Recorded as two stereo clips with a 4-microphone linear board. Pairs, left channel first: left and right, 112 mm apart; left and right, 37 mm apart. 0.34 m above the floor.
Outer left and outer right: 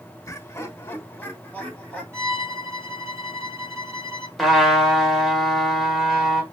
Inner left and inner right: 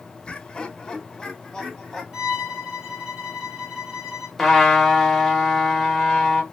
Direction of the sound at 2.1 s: 25° right (ahead or behind).